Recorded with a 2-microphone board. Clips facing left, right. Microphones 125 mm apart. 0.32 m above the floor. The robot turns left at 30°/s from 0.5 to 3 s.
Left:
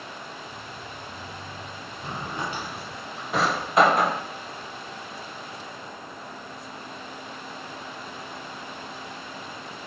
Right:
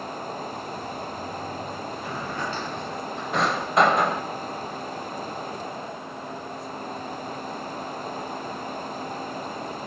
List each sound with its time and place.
2.0 s a drawer: 25° left (ahead or behind), 0.6 m; by 4.2 s centre (ahead or behind), 0.6 m